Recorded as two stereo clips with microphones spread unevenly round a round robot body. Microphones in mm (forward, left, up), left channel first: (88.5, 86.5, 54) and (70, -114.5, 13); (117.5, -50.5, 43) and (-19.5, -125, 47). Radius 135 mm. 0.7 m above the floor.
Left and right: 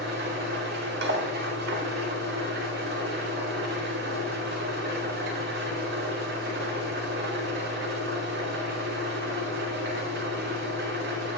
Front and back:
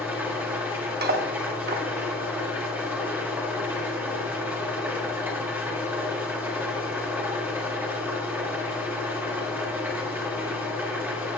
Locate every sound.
0.0 s an engine running: 75° right, 6.5 m
1.0 s cutlery clinking: 140° right, 1.3 m